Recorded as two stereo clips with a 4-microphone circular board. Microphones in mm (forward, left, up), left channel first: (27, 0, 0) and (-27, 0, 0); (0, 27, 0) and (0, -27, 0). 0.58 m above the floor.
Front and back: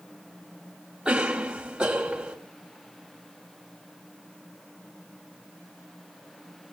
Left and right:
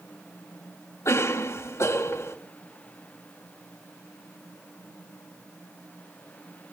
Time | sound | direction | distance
1.1 | a cough | 110° left | 3.5 m